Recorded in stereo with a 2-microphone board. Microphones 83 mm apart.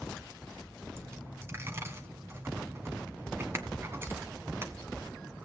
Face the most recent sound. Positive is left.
turn(degrees=-30)  # may be behind; listen again after turning